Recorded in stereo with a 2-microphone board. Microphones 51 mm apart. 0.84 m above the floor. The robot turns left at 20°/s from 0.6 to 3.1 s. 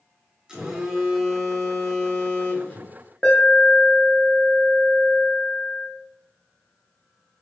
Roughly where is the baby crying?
No baby crying in this recording.